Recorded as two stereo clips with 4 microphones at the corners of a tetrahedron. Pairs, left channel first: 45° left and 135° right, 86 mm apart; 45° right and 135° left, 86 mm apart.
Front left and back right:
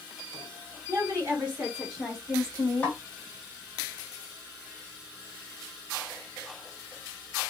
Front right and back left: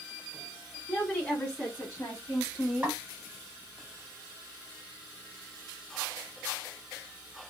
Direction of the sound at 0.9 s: 110° right.